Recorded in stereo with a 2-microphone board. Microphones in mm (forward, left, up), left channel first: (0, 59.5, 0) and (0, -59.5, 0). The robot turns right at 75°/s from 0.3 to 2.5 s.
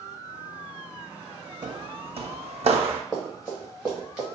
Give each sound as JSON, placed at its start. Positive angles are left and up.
{"t": 1.6, "sound": "footsteps", "side_deg": -40, "distance_m": 0.8}
{"t": 3.1, "sound": "running footsteps", "side_deg": 0, "distance_m": 1.8}